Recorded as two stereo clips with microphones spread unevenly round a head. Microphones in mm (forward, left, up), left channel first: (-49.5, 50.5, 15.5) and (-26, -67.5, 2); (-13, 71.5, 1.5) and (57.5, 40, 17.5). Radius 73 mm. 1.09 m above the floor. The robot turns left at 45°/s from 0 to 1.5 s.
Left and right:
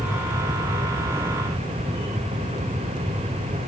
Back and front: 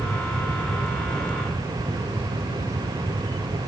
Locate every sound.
Only background noise.